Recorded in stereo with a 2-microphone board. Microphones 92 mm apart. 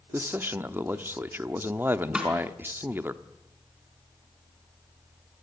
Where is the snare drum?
10° right (ahead or behind), 4 m.